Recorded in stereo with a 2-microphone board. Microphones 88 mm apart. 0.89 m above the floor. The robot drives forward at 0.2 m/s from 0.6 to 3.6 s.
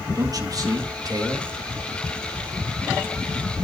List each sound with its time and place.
0.1 s a man speaking: 45° right (ahead or behind), 1.2 m